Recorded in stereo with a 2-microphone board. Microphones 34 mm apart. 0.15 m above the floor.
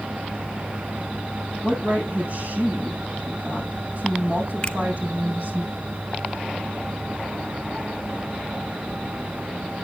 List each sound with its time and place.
1.6 s a woman speaking: 50° right (ahead or behind), 6.5 m
4.6 s a finger snap: 25° left (ahead or behind), 1.3 m